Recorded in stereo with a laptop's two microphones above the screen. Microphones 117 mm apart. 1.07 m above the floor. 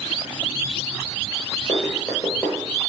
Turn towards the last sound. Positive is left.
turn(degrees=15)  # may be behind; listen again after turning